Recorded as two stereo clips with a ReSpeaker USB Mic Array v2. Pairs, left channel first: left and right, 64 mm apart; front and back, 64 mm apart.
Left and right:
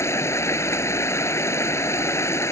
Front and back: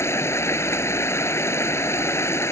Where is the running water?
45° left.